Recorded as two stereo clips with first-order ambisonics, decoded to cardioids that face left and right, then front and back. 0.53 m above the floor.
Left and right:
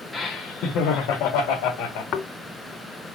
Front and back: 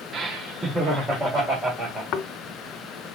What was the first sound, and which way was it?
Laughter, 165° left.